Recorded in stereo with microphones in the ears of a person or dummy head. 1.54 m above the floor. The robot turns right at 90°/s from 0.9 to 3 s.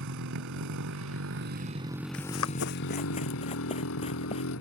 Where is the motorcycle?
110° right; by 4.6 s 80° left.